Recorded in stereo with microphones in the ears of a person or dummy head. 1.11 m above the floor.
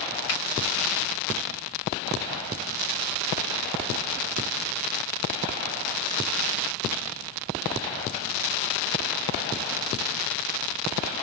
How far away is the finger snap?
About 3 m.